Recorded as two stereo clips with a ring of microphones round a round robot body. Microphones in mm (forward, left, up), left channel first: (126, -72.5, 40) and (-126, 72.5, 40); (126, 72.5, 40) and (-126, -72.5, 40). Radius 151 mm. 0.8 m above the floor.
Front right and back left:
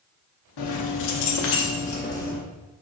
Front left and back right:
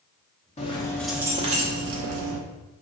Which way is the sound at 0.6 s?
40° right.